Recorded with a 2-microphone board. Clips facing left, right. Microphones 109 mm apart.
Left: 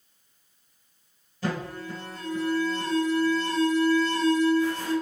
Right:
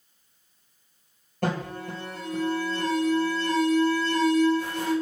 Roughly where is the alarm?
Right.